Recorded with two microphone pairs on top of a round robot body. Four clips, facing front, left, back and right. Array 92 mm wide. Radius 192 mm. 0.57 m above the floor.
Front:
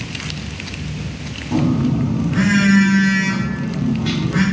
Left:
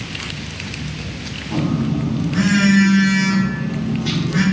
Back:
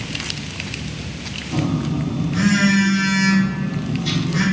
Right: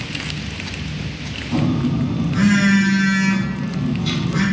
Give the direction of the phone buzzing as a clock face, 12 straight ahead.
11 o'clock.